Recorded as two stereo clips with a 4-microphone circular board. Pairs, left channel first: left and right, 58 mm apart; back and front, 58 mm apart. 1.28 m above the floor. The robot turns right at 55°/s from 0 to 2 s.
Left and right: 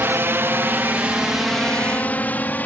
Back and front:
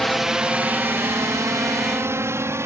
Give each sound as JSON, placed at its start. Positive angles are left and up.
{"t": 0.0, "sound": "a drone", "azimuth_deg": -95}